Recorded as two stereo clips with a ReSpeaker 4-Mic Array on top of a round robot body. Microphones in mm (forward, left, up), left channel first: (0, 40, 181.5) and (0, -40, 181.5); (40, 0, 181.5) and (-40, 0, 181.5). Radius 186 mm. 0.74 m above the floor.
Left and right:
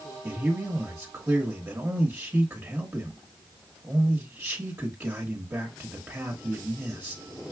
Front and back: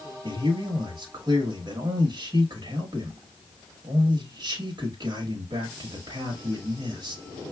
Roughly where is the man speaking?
Behind right.